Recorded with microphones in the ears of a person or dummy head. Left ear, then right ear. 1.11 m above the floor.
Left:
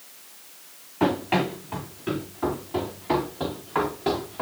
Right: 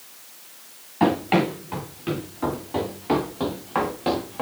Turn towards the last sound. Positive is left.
turn(degrees=-15)  # may be behind; listen again after turning